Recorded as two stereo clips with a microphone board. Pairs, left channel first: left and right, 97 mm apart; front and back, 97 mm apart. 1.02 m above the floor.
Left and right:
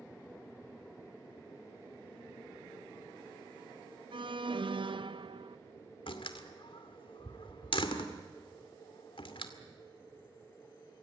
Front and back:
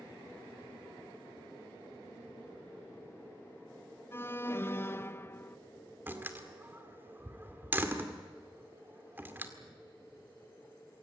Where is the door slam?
110° left, 2 m.